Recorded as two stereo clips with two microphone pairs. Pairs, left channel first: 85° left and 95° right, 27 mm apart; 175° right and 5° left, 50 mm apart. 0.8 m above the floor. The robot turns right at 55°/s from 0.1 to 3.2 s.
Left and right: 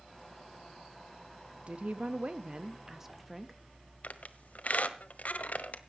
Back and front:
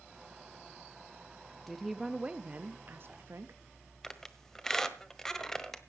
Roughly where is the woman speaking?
Right.